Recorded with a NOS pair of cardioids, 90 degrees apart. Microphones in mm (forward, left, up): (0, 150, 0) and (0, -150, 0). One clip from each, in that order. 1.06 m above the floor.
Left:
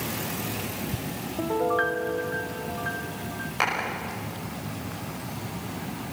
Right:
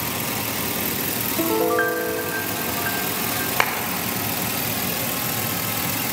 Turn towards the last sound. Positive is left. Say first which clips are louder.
# right 3 dB
turn(degrees=-55)